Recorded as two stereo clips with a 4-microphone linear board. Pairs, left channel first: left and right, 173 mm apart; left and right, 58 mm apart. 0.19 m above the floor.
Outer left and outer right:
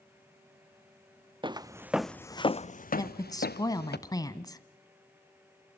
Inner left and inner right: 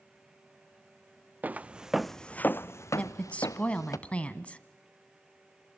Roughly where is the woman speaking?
Left.